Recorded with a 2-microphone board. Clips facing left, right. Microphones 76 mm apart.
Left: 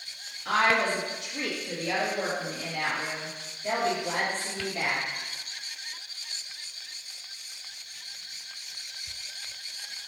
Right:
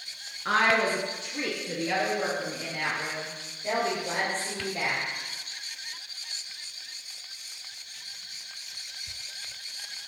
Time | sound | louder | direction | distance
0.5 | a woman speaking | right 1 dB | 45° right (ahead or behind) | 2 m